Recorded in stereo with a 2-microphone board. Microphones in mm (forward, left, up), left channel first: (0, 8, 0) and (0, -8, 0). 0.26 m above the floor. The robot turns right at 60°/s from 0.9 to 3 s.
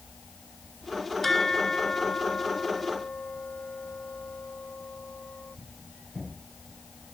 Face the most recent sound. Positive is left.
turn(degrees=115)